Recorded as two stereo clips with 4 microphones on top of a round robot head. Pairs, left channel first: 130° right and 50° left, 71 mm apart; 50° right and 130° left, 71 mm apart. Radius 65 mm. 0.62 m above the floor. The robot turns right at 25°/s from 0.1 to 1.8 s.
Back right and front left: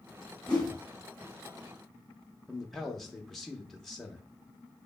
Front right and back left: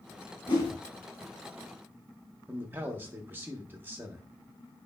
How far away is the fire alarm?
No fire alarm in this recording.